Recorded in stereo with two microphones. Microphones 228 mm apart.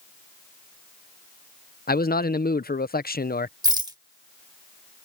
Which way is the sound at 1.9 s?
40° left (ahead or behind).